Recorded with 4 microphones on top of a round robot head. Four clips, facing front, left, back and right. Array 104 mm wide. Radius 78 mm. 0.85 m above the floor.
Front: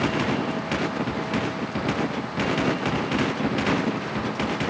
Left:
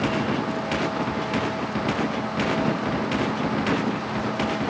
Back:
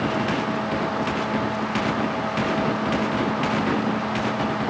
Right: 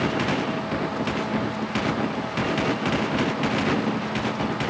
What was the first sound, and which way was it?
Only background noise.